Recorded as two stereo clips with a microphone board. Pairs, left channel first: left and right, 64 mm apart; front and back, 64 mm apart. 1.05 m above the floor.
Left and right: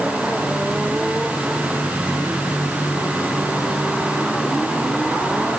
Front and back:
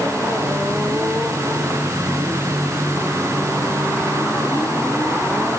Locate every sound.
Only background noise.